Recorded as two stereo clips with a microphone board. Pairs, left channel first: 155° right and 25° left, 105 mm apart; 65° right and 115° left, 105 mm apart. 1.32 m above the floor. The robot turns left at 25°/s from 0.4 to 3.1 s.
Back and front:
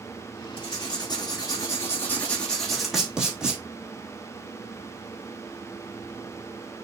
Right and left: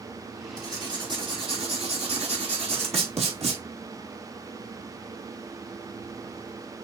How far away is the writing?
About 3.5 m.